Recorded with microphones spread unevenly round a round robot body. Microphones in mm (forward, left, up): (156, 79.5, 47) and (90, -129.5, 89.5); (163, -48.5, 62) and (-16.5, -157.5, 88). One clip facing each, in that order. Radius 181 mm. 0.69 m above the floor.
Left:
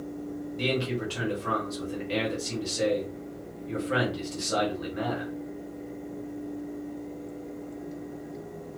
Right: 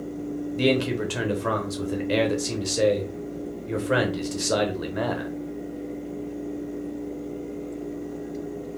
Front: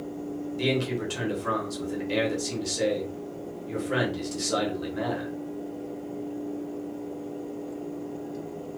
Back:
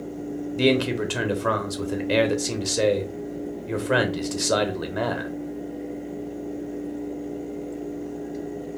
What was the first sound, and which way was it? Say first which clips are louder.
A man speaking: right 7 dB, back 7 dB; 140° right.